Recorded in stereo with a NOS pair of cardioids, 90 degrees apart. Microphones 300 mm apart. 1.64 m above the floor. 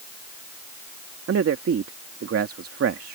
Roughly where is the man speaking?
Ahead right.